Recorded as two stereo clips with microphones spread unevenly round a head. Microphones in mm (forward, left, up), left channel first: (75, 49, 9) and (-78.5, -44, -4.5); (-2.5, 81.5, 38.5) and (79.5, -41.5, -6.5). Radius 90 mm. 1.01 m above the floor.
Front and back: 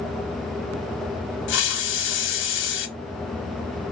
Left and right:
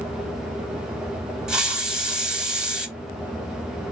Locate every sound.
1.5 s a hiss: 35° left, 1.1 m